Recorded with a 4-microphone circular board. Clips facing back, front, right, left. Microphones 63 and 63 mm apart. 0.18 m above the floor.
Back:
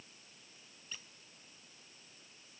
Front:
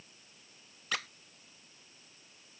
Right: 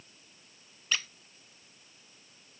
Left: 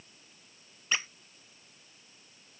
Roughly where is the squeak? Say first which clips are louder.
Front 15 dB, left 1 dB; ahead.